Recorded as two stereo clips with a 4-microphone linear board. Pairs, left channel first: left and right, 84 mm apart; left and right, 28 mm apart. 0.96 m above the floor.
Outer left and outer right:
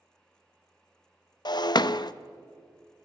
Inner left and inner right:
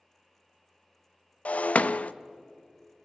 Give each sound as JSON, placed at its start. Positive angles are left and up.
{"t": 1.4, "sound": "breaking glass", "side_deg": 55, "distance_m": 0.5}